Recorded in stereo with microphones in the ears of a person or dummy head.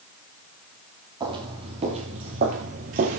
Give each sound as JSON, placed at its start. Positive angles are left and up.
{"t": 1.2, "sound": "footsteps", "side_deg": -25, "distance_m": 2.5}